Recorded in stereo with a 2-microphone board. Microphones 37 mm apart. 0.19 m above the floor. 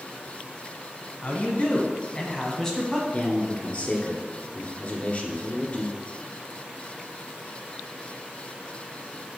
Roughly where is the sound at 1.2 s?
Left.